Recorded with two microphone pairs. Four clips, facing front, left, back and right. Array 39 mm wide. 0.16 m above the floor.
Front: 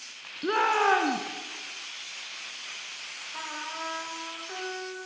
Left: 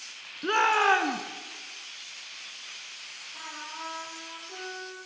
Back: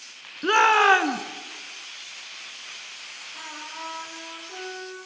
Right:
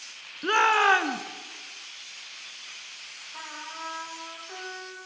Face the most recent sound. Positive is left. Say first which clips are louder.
# right 1 dB, front 2 dB
turn(degrees=-35)